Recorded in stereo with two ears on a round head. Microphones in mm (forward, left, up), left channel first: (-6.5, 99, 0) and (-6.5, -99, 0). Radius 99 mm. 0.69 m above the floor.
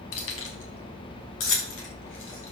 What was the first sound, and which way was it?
Keys jangling, 80° left.